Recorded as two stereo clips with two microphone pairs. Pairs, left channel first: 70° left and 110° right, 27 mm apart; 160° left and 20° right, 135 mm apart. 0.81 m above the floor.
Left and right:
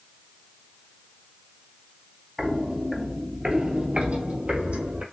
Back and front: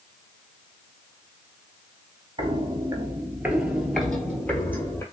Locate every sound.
2.4 s footsteps: 30° right, 0.9 m; by 5.0 s 135° right, 1.3 m